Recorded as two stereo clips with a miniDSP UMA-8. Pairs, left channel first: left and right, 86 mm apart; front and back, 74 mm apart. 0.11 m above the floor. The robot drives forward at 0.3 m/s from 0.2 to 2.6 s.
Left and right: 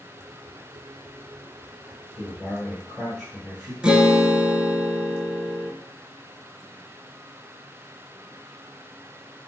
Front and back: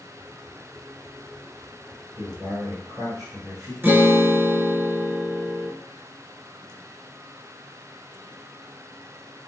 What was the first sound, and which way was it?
A man speaking, 175° right.